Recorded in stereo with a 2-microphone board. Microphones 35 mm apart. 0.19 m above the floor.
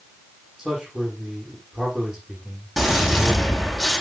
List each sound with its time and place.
0.6 s a man speaking: 15° right (ahead or behind), 9.5 m
2.8 s a gunshot: centre (ahead or behind), 7 m